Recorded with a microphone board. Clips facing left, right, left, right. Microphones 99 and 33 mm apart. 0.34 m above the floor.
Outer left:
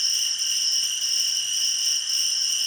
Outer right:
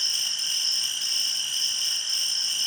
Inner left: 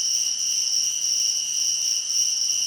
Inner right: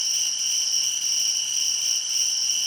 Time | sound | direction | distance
0.0 | an insect | 65° right (ahead or behind) | 0.9 m